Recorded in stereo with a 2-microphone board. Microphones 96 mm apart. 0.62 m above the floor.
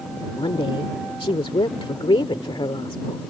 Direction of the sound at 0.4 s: 70° left (ahead or behind).